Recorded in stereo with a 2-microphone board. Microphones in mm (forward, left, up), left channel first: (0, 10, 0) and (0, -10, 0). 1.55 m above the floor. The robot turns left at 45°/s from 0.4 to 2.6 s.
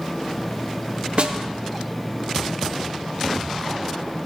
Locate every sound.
1.2 s a snare drum: 60° right (ahead or behind), 1.1 m; by 1.4 s 50° right (ahead or behind), 1.1 m